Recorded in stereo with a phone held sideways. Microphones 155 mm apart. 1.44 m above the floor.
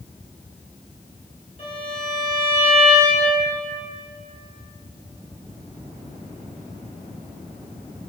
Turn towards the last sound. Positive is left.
turn(degrees=50)  # may be behind; listen again after turning